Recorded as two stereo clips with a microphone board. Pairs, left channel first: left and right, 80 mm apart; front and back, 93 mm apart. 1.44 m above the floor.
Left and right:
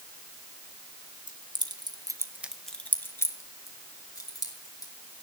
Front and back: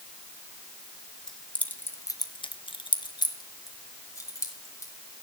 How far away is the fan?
I don't hear a fan.